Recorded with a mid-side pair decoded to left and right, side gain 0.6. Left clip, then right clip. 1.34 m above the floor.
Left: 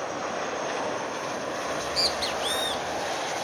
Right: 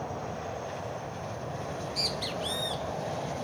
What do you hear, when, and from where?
1.7 s a bird: 35° left, 0.5 m